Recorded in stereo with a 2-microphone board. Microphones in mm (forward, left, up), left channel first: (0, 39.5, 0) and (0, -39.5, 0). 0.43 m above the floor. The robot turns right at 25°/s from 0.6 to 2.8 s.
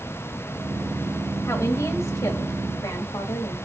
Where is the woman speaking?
45° left, 2.0 m; by 3.6 s 75° left, 2.0 m.